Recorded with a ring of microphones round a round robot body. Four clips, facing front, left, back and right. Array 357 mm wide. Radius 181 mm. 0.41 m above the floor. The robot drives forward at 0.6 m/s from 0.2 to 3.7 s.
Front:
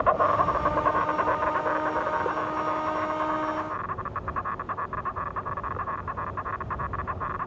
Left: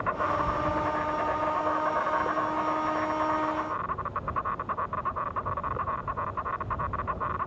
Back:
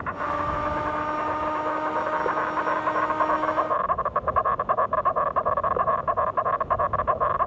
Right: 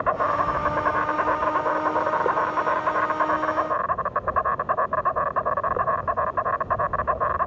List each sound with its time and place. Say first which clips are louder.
0.0 s an insect: right 5 dB, front 6 dB; 35° right; by 7.5 s 140° right